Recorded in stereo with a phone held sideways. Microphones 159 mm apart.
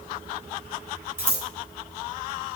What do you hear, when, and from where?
1.2 s scissors: 15° right (ahead or behind), 6 m